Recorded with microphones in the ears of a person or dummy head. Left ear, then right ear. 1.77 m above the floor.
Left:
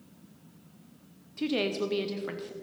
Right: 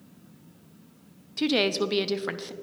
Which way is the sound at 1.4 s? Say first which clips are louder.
Right 5 dB; 35° right (ahead or behind).